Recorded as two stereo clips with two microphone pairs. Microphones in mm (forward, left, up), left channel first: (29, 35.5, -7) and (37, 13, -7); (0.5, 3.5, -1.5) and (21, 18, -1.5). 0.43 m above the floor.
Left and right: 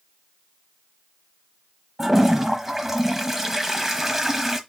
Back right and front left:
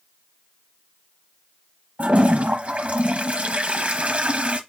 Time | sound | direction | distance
2.0 | a toilet flushing | 5° left | 0.9 m